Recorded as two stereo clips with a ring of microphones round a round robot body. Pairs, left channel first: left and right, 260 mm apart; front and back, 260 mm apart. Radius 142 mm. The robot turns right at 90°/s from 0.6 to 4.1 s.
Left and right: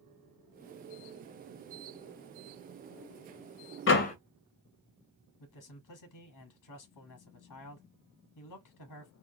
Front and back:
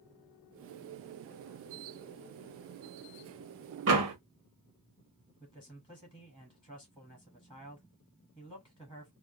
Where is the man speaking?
85° left, 1.2 m.